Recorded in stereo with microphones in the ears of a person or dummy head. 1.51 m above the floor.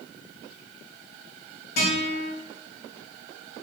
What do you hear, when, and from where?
1.8 s a guitar: 60° left (ahead or behind), 1.8 m